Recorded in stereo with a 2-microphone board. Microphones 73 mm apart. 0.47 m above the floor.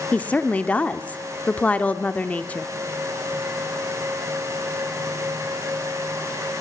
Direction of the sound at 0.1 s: 20° left (ahead or behind).